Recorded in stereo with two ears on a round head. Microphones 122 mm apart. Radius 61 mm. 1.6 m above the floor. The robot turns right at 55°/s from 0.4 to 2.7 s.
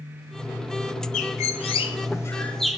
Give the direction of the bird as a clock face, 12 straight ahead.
9 o'clock.